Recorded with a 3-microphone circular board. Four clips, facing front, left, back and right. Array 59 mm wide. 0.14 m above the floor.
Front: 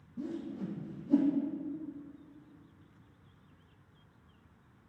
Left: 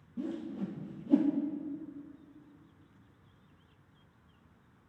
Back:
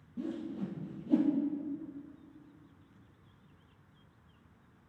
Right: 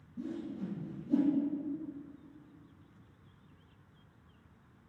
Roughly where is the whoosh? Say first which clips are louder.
Left 2 dB, back 1 dB; behind left.